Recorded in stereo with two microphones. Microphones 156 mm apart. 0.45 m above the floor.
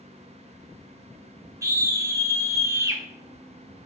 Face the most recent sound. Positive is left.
turn(degrees=-20)  # may be behind; listen again after turning